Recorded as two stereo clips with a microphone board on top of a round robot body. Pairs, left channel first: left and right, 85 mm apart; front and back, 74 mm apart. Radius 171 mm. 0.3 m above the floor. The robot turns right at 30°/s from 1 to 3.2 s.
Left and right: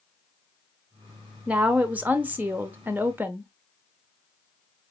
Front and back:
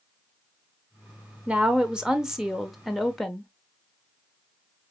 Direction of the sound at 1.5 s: 135° right.